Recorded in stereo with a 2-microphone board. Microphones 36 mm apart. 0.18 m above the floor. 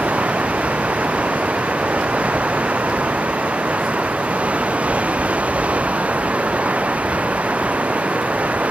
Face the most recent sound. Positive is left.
turn(degrees=-40)  # may be behind; listen again after turning